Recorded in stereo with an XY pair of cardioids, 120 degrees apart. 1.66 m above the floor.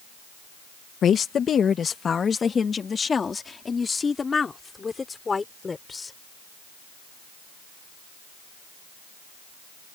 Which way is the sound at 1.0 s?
50° left.